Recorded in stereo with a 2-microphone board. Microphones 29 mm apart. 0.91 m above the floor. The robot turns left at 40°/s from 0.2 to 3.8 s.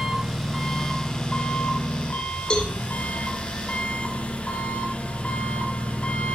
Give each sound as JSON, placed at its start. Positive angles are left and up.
{"t": 0.0, "sound": "an engine running", "azimuth_deg": -170, "distance_m": 5.0}
{"t": 2.5, "sound": "a cowbell", "side_deg": 30, "distance_m": 3.0}